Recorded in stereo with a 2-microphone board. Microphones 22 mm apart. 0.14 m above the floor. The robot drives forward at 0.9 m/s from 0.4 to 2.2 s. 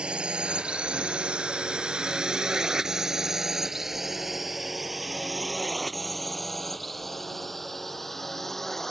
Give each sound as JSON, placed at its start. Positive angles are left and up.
{"t": 0.0, "sound": "a drone", "side_deg": -55}